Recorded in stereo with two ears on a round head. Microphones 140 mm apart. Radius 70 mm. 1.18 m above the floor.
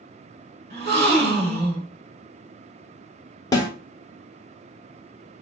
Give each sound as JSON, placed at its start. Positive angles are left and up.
{"t": 0.7, "sound": "a gasp", "side_deg": -70, "distance_m": 1.4}
{"t": 3.5, "sound": "a snare drum", "side_deg": 25, "distance_m": 0.9}